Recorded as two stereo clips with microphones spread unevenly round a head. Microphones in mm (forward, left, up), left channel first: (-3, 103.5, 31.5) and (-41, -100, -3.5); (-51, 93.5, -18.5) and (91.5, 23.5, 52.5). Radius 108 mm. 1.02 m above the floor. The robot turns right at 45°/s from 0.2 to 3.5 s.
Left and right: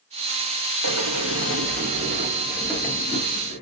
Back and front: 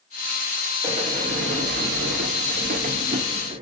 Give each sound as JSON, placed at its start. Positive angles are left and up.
{"t": 0.8, "sound": "a sliding door", "azimuth_deg": -90, "distance_m": 0.6}